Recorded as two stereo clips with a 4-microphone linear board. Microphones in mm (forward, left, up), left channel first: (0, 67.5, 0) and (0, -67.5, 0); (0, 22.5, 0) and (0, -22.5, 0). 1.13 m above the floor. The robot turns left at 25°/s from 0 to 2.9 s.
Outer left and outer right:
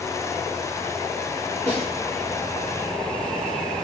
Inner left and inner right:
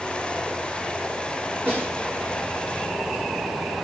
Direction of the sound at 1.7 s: 55° right (ahead or behind).